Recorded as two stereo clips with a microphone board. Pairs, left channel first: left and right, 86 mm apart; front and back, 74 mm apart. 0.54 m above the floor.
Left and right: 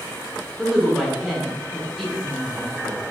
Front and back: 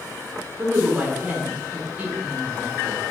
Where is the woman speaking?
Straight behind, 0.6 m.